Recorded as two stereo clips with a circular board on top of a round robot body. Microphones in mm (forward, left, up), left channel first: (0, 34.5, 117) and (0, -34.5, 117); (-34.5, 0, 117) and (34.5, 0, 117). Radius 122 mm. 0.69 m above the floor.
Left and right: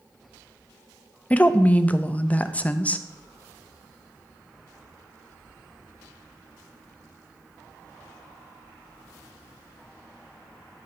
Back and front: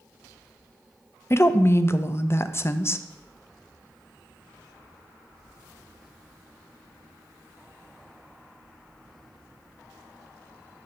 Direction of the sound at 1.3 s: 150° left.